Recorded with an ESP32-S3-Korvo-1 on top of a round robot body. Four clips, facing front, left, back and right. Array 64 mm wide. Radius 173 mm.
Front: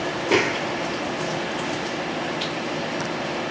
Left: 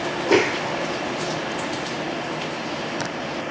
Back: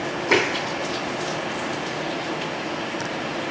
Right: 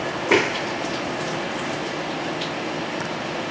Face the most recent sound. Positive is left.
turn(degrees=-125)